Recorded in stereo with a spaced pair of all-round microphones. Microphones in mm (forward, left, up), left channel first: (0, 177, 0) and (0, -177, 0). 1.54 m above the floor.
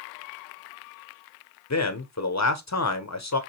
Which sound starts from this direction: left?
A man speaking, at 1.7 s.